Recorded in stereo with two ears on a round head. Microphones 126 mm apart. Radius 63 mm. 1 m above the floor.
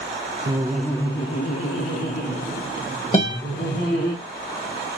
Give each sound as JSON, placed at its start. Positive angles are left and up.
{"t": 0.5, "sound": "laughter", "side_deg": -25, "distance_m": 0.5}
{"t": 3.1, "sound": "a guitar", "side_deg": 40, "distance_m": 1.4}